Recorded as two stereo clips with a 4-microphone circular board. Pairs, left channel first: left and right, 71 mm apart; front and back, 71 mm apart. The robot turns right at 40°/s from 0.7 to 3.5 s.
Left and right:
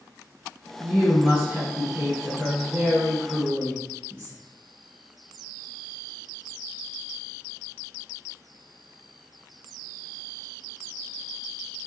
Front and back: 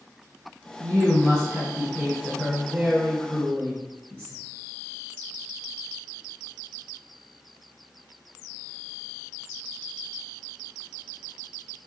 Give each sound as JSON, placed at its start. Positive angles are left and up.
{"t": 0.8, "sound": "a woman speaking", "azimuth_deg": -170, "distance_m": 1.9}